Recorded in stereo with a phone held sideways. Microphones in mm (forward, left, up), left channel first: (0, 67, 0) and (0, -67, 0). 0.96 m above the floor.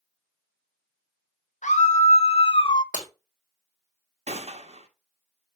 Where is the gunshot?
50° right (ahead or behind), 1.2 m.